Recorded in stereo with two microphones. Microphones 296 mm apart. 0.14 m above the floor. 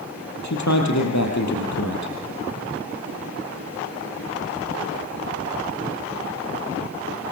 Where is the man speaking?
65° left (ahead or behind), 4 m.